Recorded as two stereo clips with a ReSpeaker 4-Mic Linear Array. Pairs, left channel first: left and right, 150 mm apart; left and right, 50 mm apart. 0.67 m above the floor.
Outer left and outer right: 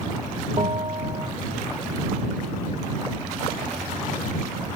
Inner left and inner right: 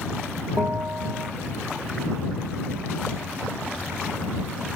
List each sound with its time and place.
0.6 s a bell: 35° right (ahead or behind)